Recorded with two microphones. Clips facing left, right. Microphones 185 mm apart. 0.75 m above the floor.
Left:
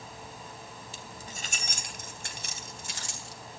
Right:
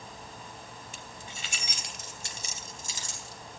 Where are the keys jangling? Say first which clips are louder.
Left 1 dB; 35° left (ahead or behind), 2.5 m; by 3.4 s 70° left (ahead or behind), 4.5 m.